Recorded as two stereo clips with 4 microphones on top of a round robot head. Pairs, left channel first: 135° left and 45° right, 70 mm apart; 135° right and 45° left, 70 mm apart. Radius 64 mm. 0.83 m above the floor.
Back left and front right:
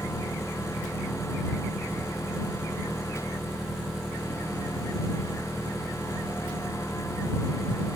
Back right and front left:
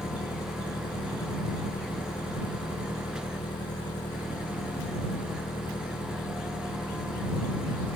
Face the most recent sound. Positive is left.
turn(degrees=-135)